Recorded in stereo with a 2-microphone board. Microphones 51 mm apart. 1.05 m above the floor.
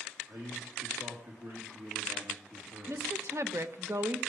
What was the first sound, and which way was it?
A man speaking, 60° right (ahead or behind).